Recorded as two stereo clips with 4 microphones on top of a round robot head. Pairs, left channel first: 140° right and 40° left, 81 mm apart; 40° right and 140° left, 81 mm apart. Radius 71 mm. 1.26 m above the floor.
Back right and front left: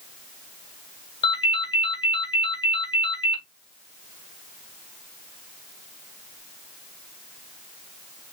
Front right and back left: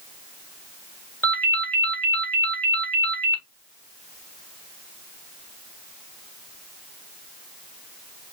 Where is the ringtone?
110° right, 2.0 m.